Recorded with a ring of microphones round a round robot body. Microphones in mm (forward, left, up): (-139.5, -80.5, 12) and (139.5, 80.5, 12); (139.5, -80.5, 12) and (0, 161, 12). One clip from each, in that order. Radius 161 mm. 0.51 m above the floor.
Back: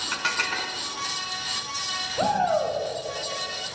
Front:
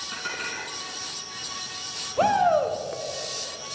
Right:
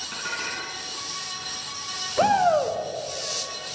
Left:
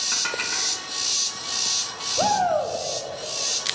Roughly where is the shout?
Ahead.